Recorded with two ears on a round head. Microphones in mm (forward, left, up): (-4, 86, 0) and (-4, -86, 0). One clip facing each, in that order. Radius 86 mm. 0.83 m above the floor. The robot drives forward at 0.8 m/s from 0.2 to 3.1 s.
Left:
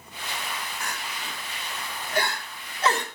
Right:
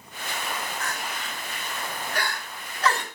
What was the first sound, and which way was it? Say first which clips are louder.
Crying: right 2 dB; 15° left (ahead or behind).